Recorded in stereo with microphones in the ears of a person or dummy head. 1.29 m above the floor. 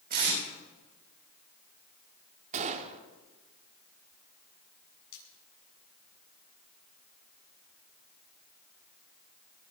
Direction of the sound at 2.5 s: 30° right (ahead or behind).